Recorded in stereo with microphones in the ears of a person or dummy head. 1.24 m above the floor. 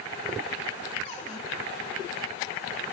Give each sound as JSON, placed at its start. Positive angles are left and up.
{"t": 1.1, "sound": "a cupboard door", "side_deg": 35, "distance_m": 4.0}